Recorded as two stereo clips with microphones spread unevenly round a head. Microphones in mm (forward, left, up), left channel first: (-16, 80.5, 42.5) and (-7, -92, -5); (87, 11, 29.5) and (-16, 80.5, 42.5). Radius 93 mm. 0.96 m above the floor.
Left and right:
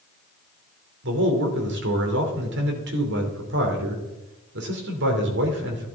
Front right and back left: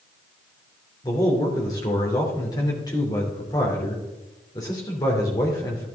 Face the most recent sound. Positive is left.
turn(degrees=-100)